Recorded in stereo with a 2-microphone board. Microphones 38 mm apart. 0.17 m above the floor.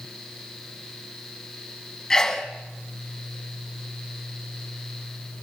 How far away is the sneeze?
About 1.5 m.